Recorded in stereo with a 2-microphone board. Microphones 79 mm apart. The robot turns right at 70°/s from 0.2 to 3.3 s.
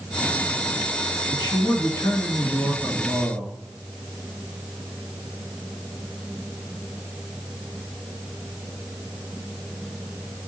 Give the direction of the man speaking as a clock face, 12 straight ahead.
9 o'clock.